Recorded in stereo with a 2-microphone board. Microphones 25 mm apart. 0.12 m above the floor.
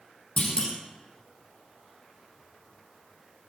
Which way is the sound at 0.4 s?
40° left (ahead or behind).